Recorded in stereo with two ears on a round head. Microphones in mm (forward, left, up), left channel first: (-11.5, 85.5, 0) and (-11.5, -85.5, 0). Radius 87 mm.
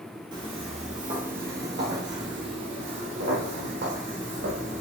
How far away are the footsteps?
About 1.9 m.